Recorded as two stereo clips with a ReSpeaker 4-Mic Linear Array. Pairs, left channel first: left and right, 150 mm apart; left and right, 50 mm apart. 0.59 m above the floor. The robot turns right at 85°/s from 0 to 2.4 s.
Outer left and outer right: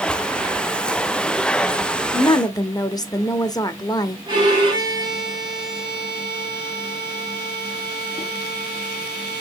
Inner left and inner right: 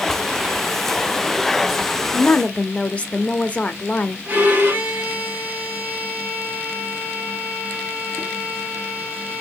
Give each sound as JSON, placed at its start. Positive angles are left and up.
{"t": 2.1, "sound": "a woman speaking", "side_deg": 35, "distance_m": 0.6}
{"t": 4.3, "sound": "a violin", "side_deg": -30, "distance_m": 2.0}